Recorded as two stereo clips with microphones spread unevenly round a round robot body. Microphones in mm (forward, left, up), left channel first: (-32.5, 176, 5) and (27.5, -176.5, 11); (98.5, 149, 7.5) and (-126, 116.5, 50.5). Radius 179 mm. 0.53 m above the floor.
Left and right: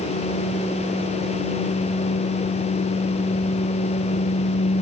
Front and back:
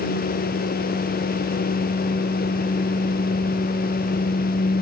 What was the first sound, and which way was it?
Only background noise.